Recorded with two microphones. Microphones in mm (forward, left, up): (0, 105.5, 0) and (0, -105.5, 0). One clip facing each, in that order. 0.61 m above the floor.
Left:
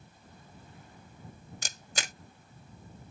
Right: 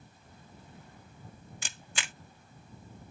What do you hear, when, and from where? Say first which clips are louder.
1.6 s a camera shutter: left 4 dB; 40° left (ahead or behind)